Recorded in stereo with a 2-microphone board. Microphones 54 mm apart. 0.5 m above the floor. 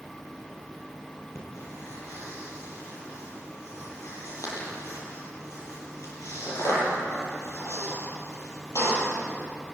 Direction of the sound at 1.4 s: 70° left (ahead or behind).